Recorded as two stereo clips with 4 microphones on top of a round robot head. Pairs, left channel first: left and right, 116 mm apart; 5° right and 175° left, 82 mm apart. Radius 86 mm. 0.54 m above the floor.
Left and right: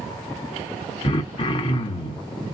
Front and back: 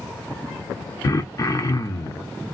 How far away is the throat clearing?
About 0.8 m.